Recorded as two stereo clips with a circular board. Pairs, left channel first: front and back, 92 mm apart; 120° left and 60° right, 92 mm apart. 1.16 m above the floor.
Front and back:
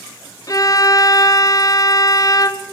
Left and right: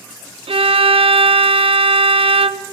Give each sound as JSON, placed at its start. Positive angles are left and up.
{"t": 0.5, "sound": "a violin", "azimuth_deg": -50, "distance_m": 0.6}